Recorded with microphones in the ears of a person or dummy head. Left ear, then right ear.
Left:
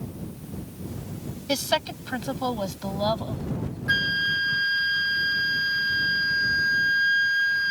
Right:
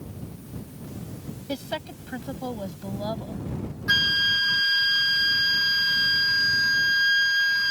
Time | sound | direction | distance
1.5 | a woman speaking | 40° left (ahead or behind) | ?
3.9 | a flute | 25° right (ahead or behind) | ?